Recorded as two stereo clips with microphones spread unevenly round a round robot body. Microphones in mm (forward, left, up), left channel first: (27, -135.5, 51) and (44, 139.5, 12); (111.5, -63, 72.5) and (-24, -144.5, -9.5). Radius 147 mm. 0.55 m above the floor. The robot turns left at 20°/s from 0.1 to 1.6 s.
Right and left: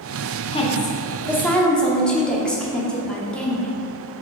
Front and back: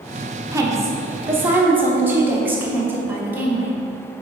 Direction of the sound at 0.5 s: 165° right.